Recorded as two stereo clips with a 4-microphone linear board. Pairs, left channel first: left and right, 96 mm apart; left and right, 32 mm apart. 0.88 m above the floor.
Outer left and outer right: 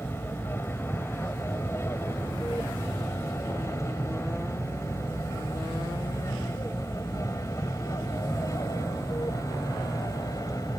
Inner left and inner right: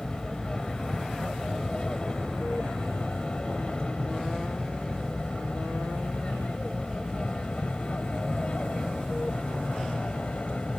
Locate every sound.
0.0 s an aircraft: 25° left (ahead or behind); by 10.8 s 35° left (ahead or behind)